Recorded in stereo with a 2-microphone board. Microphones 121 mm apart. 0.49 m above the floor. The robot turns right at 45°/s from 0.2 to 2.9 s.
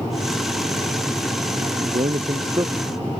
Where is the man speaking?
80° right; by 2.9 s 25° right.